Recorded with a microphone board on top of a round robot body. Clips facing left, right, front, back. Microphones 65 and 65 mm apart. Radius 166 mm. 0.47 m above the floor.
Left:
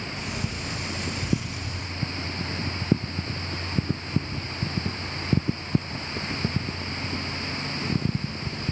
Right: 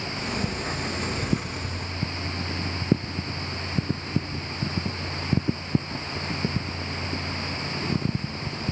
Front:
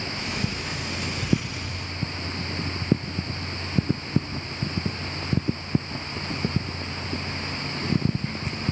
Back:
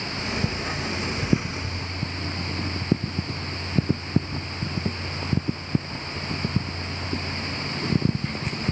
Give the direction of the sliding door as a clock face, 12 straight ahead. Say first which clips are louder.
Right 6 dB, back 4 dB; 4 o'clock.